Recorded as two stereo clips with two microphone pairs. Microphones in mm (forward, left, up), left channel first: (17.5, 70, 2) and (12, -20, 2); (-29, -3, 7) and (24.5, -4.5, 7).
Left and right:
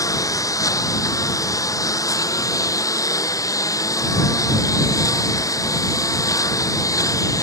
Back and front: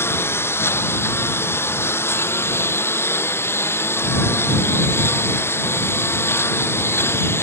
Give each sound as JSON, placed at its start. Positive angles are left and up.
{"t": 0.0, "sound": "a lawn mower", "azimuth_deg": 140}